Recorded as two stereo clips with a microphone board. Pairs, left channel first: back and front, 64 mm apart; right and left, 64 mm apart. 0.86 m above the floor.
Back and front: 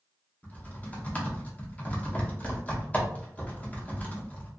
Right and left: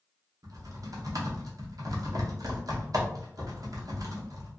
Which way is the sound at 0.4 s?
110° left.